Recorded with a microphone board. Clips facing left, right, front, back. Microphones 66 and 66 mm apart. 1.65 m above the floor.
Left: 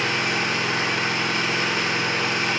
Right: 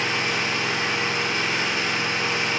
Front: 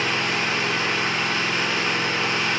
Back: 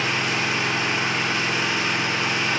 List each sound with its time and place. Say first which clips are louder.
0.0 s an engine running: left 1 dB, even; 105° left, 3.5 m